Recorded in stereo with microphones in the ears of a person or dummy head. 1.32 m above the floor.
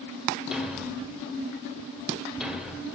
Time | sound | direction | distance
0.5 | a thud | 10° right (ahead or behind) | 1.1 m